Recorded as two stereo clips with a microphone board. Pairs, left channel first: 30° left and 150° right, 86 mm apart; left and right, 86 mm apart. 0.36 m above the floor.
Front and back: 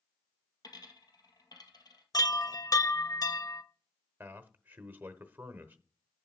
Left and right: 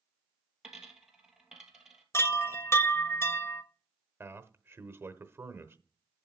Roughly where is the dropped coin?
Ahead.